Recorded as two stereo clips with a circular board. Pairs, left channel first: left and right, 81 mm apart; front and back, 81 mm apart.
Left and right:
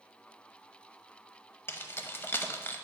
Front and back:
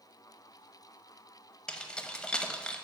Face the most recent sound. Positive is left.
turn(degrees=70)